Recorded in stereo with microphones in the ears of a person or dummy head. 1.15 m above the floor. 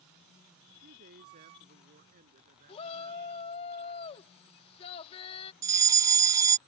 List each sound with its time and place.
0.7 s a man speaking: 45° right (ahead or behind)
2.7 s a shout: 30° left (ahead or behind)
5.6 s a fire alarm: 20° right (ahead or behind)